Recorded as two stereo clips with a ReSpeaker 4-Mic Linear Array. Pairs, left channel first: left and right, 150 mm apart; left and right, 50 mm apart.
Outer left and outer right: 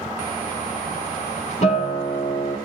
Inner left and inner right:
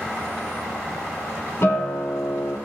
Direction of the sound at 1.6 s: 45° left (ahead or behind).